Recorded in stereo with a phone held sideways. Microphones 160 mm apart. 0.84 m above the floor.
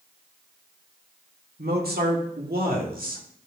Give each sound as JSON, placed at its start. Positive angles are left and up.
{"t": 1.6, "sound": "a man speaking", "side_deg": -75, "distance_m": 1.8}